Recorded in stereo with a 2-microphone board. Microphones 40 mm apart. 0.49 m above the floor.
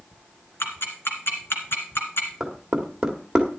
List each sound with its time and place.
0.6 s ticking: 70° left (ahead or behind), 1.9 m
2.4 s knocking: 15° right (ahead or behind), 1.6 m